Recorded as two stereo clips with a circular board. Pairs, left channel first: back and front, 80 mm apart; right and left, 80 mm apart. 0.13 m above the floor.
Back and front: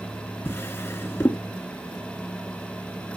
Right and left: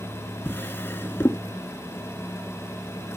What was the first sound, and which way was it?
A drawer, 135° right.